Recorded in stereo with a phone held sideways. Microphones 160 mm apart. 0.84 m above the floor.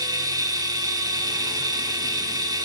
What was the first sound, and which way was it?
A machine running, 25° right (ahead or behind).